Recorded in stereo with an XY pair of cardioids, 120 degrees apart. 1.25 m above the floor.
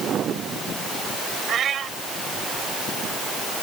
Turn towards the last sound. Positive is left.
turn(degrees=-50)